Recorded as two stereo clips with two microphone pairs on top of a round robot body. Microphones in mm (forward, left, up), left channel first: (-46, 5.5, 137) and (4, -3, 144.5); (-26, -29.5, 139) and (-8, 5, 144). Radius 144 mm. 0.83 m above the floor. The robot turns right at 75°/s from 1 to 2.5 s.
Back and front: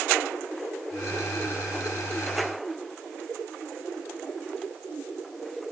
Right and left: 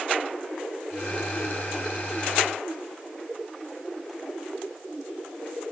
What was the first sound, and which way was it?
Only background noise.